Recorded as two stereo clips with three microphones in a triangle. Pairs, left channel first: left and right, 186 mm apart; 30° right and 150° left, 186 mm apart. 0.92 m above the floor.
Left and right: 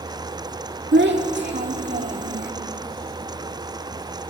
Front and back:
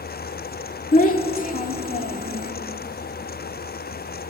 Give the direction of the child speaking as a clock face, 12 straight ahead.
2 o'clock.